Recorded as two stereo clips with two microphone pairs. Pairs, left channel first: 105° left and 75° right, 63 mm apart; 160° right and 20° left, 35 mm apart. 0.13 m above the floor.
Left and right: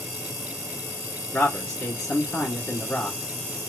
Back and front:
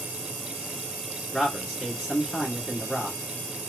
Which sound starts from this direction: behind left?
A man speaking, at 1.3 s.